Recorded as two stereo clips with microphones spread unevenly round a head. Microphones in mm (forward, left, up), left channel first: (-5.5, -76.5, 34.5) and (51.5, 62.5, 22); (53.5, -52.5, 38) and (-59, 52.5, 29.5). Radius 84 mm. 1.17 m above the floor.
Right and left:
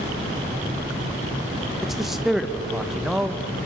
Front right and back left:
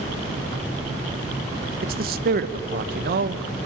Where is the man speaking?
155° left, 1.3 m.